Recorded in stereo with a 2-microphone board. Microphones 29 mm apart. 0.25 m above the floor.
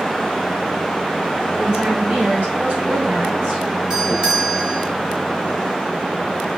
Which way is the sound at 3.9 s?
25° right (ahead or behind).